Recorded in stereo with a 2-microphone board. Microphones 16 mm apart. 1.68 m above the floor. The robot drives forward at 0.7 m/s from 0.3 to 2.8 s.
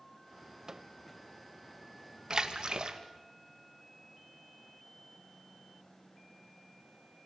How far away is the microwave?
About 0.6 m.